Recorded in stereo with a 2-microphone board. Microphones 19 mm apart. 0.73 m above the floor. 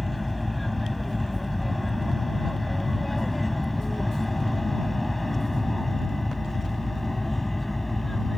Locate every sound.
0.0 s an aircraft: 5° left (ahead or behind); by 8.4 s 10° left (ahead or behind)